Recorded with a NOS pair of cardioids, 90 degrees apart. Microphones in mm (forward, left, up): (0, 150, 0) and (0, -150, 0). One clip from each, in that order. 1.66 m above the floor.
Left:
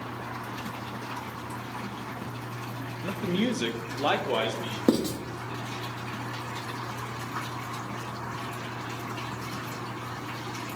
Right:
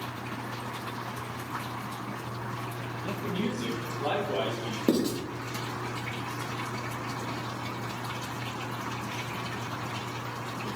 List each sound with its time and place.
3.0 s a man speaking: 30° left, 0.6 m; by 4.8 s 80° left, 1.1 m
4.9 s writing: 15° left, 0.7 m